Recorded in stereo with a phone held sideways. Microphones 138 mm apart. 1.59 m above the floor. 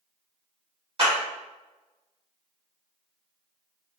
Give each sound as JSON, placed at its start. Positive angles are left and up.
{"t": 1.0, "sound": "a clap", "side_deg": -45, "distance_m": 1.5}